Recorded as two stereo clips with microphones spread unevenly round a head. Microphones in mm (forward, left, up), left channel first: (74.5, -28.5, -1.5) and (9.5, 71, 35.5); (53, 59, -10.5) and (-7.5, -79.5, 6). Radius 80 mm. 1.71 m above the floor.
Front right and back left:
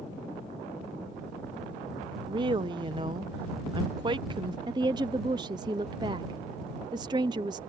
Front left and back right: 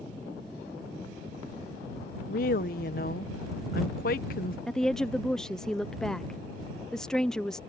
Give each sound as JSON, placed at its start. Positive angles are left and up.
{"t": 2.3, "sound": "a woman speaking", "azimuth_deg": 95}
{"t": 4.7, "sound": "a woman speaking", "azimuth_deg": 155}